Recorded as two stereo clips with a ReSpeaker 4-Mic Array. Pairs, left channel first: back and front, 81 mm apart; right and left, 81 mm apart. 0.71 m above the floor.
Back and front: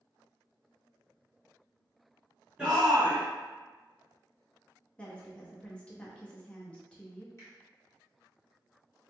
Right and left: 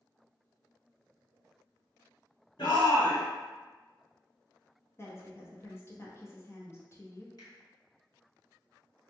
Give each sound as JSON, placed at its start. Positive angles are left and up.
{"t": 2.6, "sound": "a shout", "azimuth_deg": -75, "distance_m": 1.4}
{"t": 5.0, "sound": "a woman speaking", "azimuth_deg": -110, "distance_m": 0.8}
{"t": 7.4, "sound": "a finger snap", "azimuth_deg": -130, "distance_m": 1.4}